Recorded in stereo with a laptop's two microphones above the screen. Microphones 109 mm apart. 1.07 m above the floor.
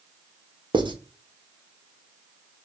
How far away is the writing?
About 0.8 m.